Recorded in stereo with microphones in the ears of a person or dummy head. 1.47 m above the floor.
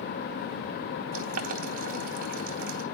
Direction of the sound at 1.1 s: 45° right (ahead or behind).